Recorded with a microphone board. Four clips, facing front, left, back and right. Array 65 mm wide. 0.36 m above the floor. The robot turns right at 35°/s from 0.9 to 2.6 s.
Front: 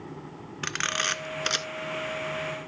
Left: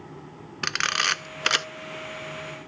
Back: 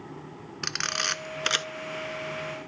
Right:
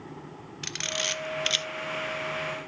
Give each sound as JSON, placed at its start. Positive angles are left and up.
{"t": 0.6, "sound": "a camera shutter", "azimuth_deg": 75, "distance_m": 0.6}